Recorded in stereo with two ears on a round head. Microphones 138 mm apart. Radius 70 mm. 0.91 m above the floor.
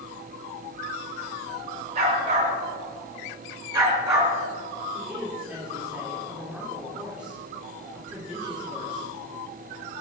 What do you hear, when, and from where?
1.9 s a dog barking: 40° right (ahead or behind), 5.5 m; by 4.3 s 15° right (ahead or behind), 4 m
4.9 s a woman speaking: 10° right (ahead or behind), 3 m